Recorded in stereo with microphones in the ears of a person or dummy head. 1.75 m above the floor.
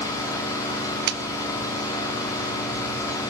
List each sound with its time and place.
0.0 s an engine running: 20° left (ahead or behind), 3.5 m
1.1 s a clap: 60° right (ahead or behind), 1.0 m